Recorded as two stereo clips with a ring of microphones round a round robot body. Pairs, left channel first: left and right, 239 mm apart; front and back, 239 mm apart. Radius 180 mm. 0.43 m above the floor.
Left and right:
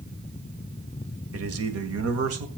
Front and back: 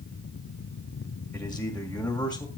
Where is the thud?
No thud in this recording.